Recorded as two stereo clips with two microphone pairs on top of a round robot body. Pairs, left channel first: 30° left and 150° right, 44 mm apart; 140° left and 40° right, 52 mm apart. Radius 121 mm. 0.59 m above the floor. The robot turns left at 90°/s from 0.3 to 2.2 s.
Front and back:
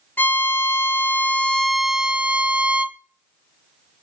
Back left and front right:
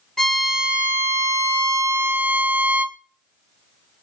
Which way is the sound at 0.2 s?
70° left.